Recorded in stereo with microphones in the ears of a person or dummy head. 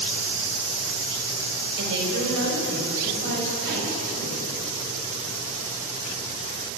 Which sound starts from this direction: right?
A woman speaking, at 1.8 s.